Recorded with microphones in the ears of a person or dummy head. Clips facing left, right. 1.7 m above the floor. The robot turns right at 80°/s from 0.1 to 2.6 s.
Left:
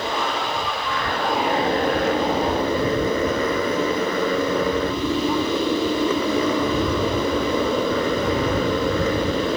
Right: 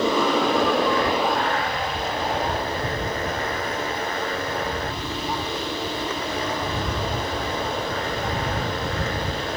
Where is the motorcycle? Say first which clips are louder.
Right 5 dB; 95° right; by 9.6 s 105° left.